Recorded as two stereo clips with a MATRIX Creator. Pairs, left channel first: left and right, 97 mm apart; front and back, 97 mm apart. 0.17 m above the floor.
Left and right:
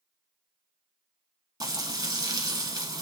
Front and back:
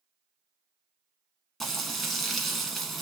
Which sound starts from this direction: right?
Frying, at 1.6 s.